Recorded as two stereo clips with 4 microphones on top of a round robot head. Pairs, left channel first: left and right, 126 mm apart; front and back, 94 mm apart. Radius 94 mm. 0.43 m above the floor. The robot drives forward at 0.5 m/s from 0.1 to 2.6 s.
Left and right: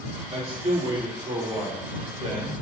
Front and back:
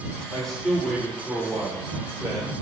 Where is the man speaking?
85° right, 1.9 m; by 2.5 s 125° right, 2 m.